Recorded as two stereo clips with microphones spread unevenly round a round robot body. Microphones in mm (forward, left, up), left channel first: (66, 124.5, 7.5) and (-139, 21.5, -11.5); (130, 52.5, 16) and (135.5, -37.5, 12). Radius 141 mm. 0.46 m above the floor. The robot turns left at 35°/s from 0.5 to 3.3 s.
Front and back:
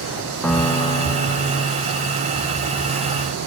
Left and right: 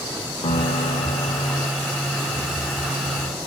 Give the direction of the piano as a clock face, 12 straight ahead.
8 o'clock.